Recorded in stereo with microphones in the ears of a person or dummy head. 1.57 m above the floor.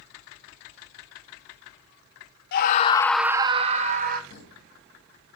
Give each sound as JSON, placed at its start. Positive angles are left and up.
{"t": 2.5, "sound": "a scream", "side_deg": 55, "distance_m": 0.9}
{"t": 4.3, "sound": "a thud", "side_deg": 65, "distance_m": 5.0}